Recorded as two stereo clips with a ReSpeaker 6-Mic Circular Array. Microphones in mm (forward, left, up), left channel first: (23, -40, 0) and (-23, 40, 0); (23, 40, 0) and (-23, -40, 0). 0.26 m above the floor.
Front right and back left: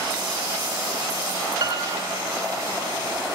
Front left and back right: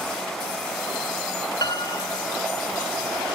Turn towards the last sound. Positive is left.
turn(degrees=90)